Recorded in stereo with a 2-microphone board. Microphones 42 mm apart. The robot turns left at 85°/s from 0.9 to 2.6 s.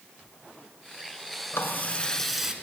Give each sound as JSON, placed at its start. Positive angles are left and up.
{"t": 1.5, "sound": "a running tap", "azimuth_deg": 70, "distance_m": 2.5}